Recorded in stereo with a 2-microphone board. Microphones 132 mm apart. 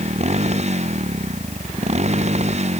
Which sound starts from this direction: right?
A motorcycle, at 0.0 s.